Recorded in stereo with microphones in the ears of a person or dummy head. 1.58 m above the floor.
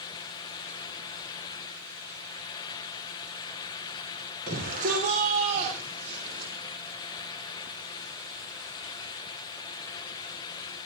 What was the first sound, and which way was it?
A shout, 50° right (ahead or behind).